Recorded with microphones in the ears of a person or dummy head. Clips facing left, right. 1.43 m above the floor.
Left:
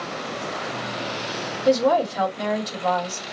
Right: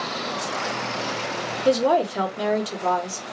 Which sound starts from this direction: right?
A woman speaking, at 1.6 s.